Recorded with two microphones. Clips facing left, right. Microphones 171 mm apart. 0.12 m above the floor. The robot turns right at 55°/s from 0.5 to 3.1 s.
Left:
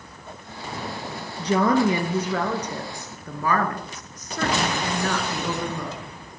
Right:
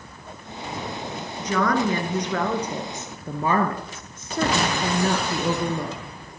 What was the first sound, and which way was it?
A woman speaking, 125° left.